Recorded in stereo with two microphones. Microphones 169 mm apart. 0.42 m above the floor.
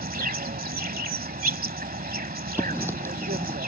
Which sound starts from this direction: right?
An insect, at 0.0 s.